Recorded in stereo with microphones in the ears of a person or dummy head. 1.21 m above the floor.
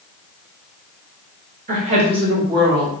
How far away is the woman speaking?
About 1.3 m.